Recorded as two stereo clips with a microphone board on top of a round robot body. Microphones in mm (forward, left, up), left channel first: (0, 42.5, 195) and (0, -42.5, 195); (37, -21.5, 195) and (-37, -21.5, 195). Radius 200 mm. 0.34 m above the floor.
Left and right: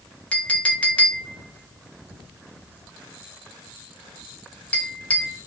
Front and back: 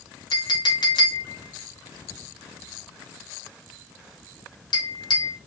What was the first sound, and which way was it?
A clink, 15° left.